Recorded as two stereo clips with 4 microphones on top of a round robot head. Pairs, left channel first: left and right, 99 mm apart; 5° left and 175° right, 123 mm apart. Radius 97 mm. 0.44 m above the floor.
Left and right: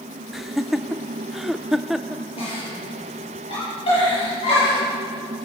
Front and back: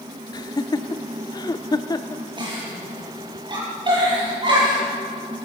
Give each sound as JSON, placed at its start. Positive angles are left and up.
{"t": 0.3, "sound": "laughter", "azimuth_deg": -5, "distance_m": 0.9}
{"t": 2.4, "sound": "a giggle", "azimuth_deg": 130, "distance_m": 9.0}